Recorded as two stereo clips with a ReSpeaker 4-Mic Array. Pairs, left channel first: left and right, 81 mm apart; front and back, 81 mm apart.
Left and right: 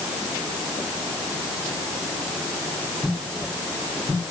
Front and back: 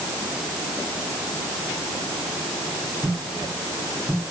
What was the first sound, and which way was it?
Only background noise.